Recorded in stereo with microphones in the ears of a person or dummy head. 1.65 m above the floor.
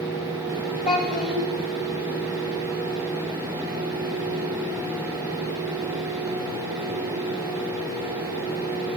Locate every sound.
0.8 s a child speaking: 65° right (ahead or behind), 3 m